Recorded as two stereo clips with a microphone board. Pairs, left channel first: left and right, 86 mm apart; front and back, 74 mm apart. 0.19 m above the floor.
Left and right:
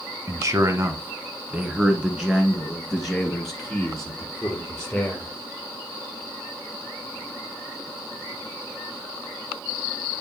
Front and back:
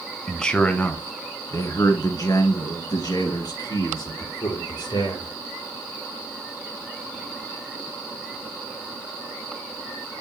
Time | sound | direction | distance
0.3 | a man speaking | 85° right | 1.3 m